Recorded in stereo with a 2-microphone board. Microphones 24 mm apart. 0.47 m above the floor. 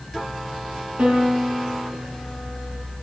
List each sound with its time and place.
1.0 s a piano: 55° right (ahead or behind), 7.5 m